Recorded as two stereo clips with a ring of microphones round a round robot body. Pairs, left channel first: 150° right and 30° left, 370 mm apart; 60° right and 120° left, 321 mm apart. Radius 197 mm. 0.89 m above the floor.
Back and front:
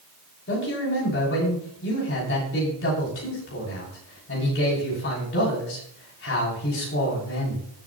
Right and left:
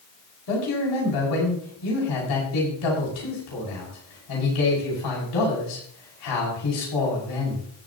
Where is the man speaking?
90° right, 6 m.